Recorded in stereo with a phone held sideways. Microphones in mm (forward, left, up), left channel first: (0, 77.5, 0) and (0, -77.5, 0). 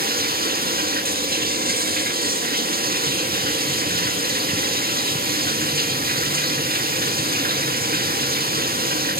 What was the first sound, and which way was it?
Running water, 75° right (ahead or behind).